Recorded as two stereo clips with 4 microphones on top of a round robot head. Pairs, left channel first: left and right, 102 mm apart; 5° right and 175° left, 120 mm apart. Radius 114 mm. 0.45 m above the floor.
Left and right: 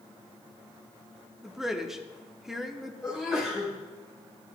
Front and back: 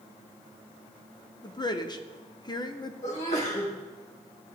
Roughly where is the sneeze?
Ahead.